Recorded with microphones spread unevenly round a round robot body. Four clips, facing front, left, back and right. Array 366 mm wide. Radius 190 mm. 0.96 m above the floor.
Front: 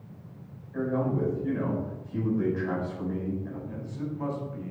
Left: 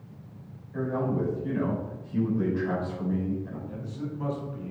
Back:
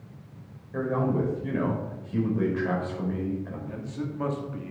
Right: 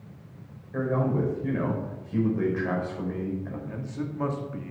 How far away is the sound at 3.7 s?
About 2.5 m.